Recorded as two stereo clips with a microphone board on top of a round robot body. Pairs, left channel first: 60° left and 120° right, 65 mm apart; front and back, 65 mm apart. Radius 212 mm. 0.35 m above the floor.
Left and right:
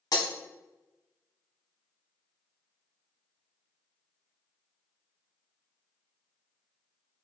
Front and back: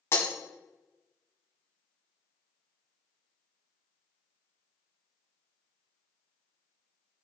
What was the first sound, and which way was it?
Breaking glass, 45° left.